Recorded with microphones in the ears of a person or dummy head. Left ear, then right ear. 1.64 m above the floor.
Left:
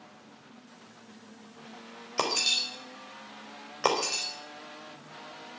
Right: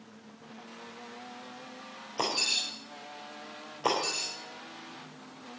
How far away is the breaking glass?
About 4.5 m.